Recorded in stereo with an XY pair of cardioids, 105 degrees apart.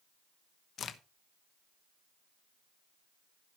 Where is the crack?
55° left, 1.1 m.